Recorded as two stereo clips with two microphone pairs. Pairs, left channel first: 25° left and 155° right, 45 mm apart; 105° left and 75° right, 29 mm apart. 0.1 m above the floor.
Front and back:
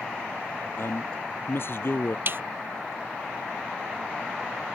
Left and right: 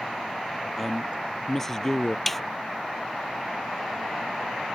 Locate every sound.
0.8 s a man speaking: 15° left; by 2.2 s 40° left
2.3 s a snare drum: 175° right